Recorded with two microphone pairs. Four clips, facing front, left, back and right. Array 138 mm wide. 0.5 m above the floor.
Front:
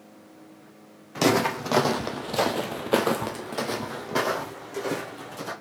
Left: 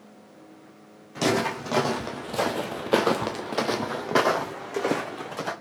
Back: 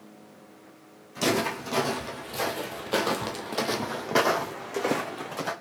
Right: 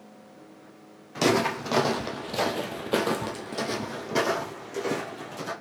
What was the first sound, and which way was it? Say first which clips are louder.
Footsteps: right 1 dB, front 4 dB; 10° right.